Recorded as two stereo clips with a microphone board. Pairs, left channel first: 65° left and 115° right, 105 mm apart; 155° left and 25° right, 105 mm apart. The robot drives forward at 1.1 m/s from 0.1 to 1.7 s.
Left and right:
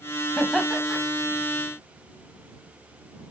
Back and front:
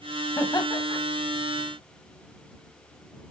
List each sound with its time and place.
0.4 s laughter: 150° left, 1.2 m; by 1.0 s 165° left, 1.6 m